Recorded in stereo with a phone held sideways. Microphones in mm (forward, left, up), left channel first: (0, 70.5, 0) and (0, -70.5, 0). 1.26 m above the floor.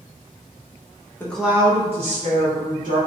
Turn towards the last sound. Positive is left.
turn(degrees=-75)  # may be behind; listen again after turning